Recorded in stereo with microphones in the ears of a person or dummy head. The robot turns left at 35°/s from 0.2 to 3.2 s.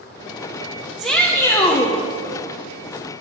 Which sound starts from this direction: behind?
A shout, at 1.0 s.